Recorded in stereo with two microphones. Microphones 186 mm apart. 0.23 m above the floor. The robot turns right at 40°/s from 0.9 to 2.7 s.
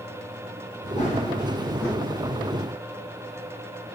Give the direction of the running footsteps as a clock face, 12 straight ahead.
7 o'clock.